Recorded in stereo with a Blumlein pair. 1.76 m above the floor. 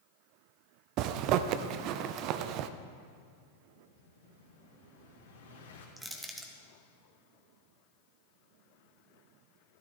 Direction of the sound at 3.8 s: 65° left.